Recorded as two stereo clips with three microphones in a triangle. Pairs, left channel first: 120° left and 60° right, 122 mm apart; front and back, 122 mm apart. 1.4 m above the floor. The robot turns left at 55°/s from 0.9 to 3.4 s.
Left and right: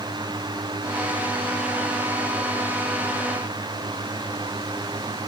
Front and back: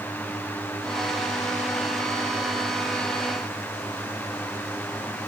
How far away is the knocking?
I don't hear knocking.